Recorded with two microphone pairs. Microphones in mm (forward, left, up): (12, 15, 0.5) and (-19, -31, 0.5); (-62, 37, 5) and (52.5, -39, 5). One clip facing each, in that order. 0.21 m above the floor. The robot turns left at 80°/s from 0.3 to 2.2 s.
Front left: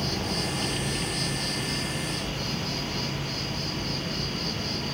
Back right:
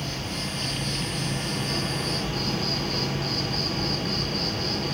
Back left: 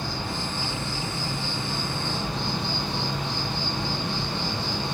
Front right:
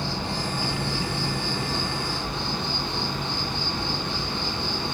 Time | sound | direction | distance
0.0 | an insect | 25° left | 0.8 m